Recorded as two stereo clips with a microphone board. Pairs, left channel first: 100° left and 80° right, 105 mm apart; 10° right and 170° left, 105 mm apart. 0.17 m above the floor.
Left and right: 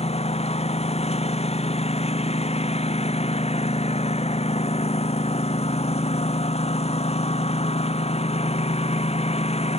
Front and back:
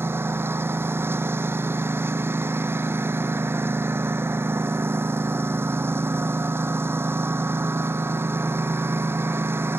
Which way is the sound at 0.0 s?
100° left.